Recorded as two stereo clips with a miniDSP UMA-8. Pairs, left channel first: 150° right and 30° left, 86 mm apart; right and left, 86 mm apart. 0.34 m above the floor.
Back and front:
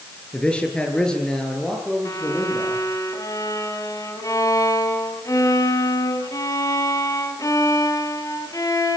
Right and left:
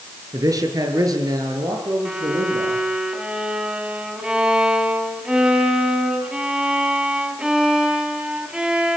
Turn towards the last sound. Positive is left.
turn(degrees=170)